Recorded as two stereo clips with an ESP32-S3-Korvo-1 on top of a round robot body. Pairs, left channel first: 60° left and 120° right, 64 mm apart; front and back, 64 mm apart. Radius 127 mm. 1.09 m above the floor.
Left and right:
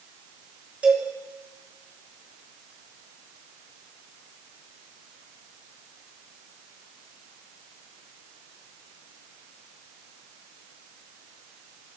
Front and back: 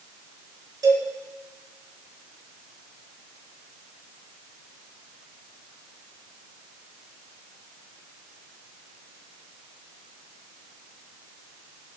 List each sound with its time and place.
0.8 s a cowbell: 170° left, 6 m